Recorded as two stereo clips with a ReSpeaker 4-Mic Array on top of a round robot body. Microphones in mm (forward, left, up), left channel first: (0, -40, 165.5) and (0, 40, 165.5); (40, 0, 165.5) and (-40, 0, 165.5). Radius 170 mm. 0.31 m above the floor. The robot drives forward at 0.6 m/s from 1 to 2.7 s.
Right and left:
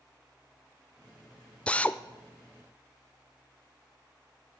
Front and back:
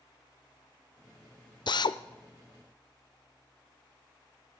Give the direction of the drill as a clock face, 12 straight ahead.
12 o'clock.